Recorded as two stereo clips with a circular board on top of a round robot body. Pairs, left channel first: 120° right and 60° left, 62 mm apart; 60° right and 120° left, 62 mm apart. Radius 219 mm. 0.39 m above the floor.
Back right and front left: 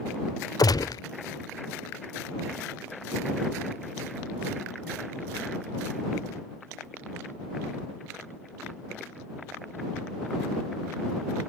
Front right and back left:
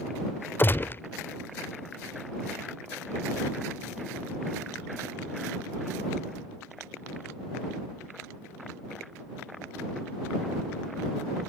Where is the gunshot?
115° right.